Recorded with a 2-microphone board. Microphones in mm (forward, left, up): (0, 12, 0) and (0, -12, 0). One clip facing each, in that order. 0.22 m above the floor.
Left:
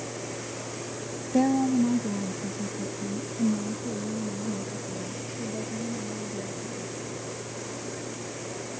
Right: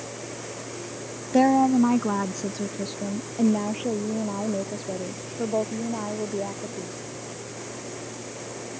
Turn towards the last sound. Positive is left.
turn(degrees=-85)